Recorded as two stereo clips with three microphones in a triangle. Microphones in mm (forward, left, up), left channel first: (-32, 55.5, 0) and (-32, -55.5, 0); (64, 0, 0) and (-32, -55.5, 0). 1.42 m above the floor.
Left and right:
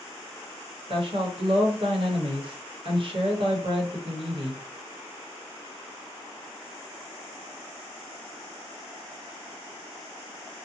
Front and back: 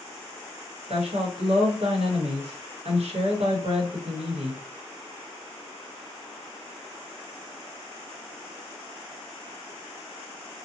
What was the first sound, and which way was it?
A woman speaking, 130° right.